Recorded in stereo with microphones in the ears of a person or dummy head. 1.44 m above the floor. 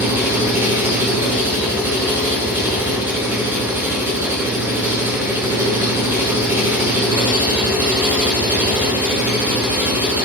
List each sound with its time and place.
0.0 s an engine running: 15° right (ahead or behind), 1.4 m